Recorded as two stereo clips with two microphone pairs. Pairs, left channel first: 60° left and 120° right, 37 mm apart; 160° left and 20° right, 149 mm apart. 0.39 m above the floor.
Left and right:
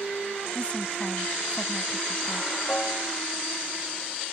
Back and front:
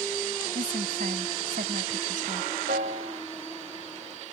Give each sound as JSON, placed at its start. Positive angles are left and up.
{"t": 0.6, "sound": "a woman speaking", "azimuth_deg": 0}
{"t": 2.7, "sound": "a piano", "azimuth_deg": 0}